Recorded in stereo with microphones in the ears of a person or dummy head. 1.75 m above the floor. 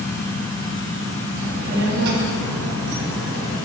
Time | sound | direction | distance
1.4 | a child speaking | 45° right (ahead or behind) | 2.5 m